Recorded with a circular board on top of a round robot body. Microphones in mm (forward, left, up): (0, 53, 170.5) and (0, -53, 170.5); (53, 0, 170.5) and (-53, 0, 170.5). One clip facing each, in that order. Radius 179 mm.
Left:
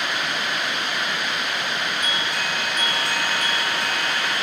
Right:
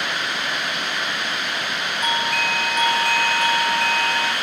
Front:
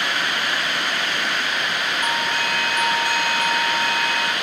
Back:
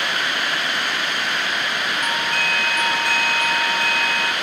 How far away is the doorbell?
About 2.5 m.